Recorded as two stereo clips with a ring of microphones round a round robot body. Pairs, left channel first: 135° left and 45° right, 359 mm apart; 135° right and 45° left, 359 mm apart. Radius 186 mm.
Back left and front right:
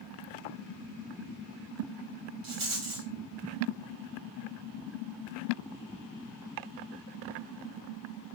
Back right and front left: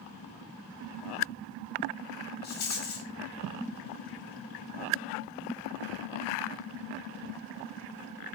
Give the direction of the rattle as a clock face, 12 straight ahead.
2 o'clock.